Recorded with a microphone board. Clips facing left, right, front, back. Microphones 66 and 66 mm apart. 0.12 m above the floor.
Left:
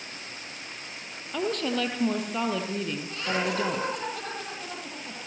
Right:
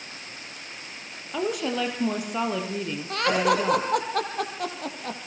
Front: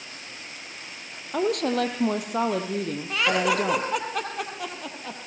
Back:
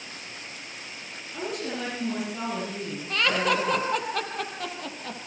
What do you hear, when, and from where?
1.3 s a woman speaking: 10° right, 4 m
3.1 s laughter: 85° right, 3 m